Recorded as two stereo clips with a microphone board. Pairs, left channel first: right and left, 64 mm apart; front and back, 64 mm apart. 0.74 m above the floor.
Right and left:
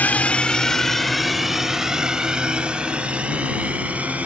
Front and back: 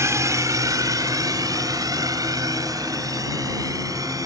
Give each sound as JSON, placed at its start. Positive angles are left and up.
{"t": 0.0, "sound": "a drone", "azimuth_deg": -150}